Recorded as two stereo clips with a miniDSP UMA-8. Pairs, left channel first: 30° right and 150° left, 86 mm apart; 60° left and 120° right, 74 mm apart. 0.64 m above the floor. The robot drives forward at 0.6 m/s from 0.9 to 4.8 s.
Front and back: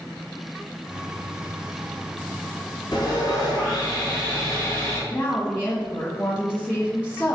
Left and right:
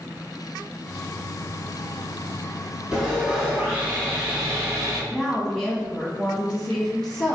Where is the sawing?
50° right, 1.9 m; by 5.0 s 85° right, 1.5 m.